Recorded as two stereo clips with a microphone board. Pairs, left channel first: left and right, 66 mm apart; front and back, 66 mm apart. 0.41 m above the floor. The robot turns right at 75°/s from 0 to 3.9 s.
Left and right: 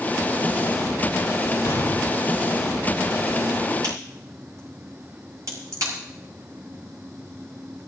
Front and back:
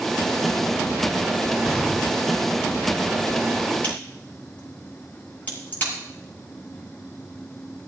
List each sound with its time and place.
1.6 s an explosion: 85° left, 6 m; by 2.3 s 130° left, 6 m
3.8 s a crack: 70° right, 9 m; by 5.9 s 65° right, 9 m